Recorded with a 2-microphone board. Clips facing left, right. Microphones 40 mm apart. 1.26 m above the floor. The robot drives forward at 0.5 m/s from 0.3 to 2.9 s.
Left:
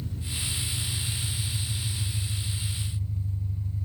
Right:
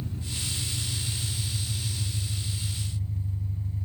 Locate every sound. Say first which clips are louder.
0.0 s an engine running: even; 30° right (ahead or behind), 4.5 m; by 3.9 s 40° right (ahead or behind), 3.5 m